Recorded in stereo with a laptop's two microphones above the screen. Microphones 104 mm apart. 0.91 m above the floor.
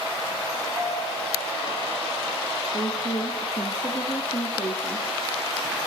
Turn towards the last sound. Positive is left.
turn(degrees=45)  # may be behind; listen again after turning